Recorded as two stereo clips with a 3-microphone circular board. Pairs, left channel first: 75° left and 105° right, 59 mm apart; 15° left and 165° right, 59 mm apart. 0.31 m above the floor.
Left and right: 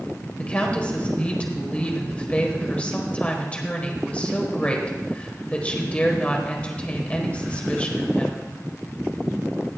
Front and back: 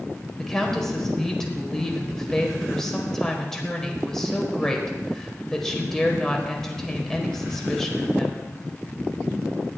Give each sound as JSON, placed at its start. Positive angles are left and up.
{"t": 0.4, "sound": "a woman speaking", "azimuth_deg": 80, "distance_m": 1.5}